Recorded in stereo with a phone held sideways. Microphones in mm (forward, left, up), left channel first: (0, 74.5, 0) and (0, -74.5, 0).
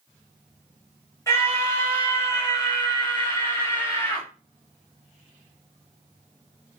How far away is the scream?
About 7 m.